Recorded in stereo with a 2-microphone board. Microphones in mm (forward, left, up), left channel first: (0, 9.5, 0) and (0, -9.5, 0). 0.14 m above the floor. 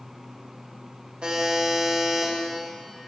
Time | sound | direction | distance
1.2 | a buzzer | 50° right (ahead or behind) | 7.5 m